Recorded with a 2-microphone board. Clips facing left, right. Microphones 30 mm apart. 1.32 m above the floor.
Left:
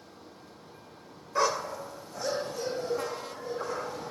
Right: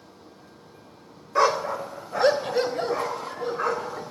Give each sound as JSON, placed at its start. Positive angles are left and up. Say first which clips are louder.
{"t": 1.4, "sound": "a dog barking", "louder": "right 6 dB", "side_deg": -20, "distance_m": 1.1}